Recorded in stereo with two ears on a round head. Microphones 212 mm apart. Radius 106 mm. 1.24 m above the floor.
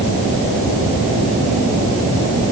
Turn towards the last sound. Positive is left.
No sound to turn to.